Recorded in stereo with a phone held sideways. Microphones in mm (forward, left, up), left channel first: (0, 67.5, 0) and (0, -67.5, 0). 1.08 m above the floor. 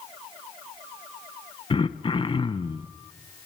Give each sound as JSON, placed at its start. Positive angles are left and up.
{"t": 1.7, "sound": "throat clearing", "side_deg": 40, "distance_m": 0.7}